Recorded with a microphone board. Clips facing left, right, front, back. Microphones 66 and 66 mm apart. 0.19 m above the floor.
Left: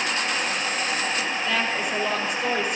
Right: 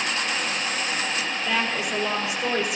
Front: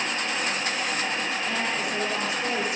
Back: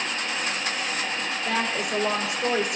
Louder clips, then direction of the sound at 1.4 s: Right 1 dB, back 1 dB; 175° right.